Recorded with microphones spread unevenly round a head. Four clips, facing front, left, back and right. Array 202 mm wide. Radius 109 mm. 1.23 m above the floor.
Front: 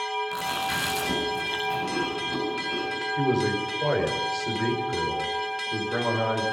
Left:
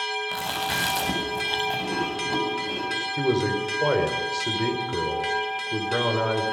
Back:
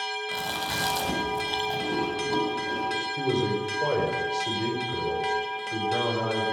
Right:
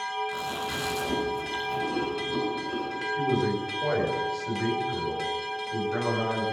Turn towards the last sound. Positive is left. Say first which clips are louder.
# left 3 dB, front 3 dB
turn(degrees=80)